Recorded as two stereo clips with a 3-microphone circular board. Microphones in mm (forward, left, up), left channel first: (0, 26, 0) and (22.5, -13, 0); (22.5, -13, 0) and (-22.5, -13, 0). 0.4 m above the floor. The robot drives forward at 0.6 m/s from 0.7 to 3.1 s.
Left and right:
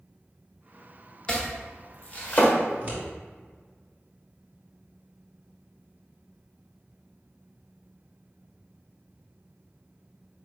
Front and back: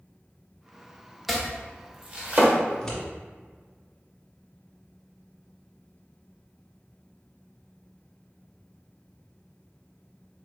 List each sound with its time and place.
1.3 s chopping: 100° left, 0.8 m; by 2.5 s 160° left, 1.1 m
2.7 s scissors: 75° right, 1.5 m; by 3.0 s 85° right, 1.5 m